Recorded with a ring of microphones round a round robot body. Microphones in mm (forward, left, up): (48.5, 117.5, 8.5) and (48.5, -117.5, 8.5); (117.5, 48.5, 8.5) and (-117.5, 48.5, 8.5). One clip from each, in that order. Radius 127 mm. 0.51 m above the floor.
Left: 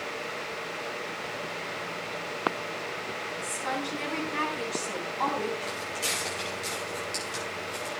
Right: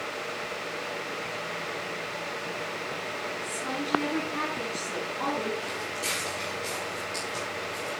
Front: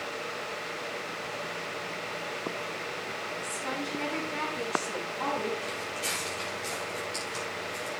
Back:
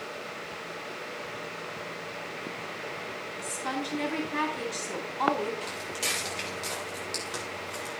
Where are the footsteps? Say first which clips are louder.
Even, back 1 dB; 165° left, 6 m; by 7.9 s 145° left, 6.5 m.